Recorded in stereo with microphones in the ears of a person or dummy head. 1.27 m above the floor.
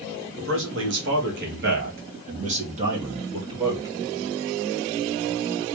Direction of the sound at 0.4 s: 70° right (ahead or behind).